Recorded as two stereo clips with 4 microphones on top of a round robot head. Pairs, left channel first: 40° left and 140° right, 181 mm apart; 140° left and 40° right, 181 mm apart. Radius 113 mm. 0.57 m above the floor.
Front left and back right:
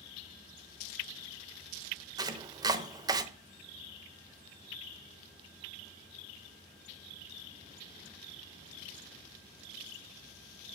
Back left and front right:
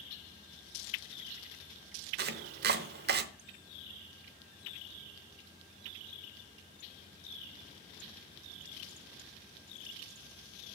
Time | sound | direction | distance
2.2 | chopping | 70° right | 0.8 m